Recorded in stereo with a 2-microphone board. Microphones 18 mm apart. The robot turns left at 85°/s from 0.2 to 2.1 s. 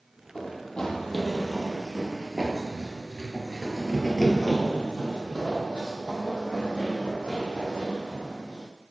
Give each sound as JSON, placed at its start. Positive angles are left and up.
{"t": 0.3, "sound": "running footsteps", "side_deg": 65, "distance_m": 1.6}